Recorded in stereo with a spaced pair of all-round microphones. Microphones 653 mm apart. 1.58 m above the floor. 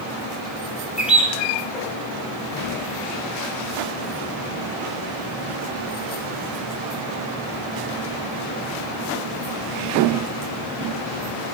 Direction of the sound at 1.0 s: Centre (ahead or behind).